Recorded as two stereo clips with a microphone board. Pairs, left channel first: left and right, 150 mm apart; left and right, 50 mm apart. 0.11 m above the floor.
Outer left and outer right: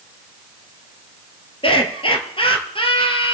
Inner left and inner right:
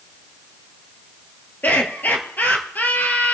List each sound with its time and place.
1.6 s laughter: 35° left (ahead or behind), 2.5 m